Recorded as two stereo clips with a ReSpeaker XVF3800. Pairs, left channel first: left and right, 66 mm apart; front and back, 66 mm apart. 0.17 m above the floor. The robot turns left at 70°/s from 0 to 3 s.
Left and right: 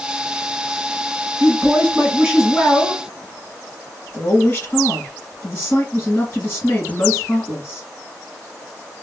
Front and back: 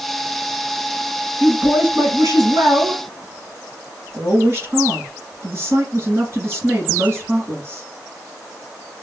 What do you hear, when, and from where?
1.4 s a woman speaking: 115° right, 2 m; by 7.9 s 130° left, 2 m